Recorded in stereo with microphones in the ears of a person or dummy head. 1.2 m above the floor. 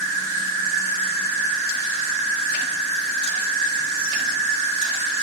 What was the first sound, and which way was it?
An insect, 65° right (ahead or behind).